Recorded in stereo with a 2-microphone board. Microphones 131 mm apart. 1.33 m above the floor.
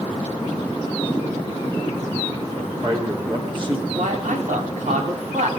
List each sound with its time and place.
2.5 s a man speaking: 40° right (ahead or behind), 4 m
4.0 s a man speaking: 85° right, 4 m